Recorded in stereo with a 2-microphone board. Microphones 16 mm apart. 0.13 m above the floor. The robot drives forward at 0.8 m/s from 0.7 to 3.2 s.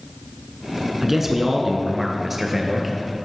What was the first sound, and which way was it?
A man speaking, 20° right (ahead or behind).